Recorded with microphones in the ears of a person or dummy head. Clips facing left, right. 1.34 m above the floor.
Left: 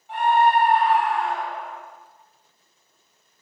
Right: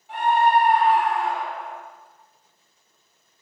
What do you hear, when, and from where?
0.1 s a scream: 90° right, 7 m